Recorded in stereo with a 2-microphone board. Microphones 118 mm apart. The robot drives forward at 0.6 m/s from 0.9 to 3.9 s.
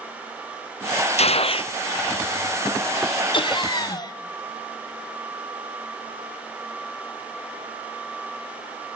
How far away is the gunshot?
About 0.8 m.